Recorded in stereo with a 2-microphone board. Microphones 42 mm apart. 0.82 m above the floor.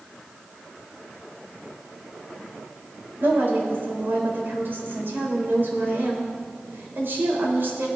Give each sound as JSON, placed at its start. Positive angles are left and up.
{"t": 3.2, "sound": "a woman speaking", "side_deg": -60, "distance_m": 4.0}